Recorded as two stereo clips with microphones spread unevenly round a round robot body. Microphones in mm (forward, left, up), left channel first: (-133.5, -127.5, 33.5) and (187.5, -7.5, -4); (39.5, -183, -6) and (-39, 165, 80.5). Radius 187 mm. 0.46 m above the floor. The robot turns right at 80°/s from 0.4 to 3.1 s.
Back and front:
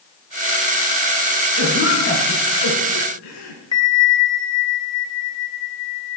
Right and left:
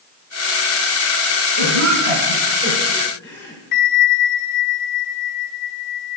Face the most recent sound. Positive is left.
turn(degrees=-80)